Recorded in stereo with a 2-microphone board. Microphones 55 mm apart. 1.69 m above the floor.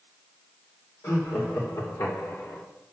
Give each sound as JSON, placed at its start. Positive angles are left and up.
{"t": 1.0, "sound": "laughter", "side_deg": 80, "distance_m": 3.0}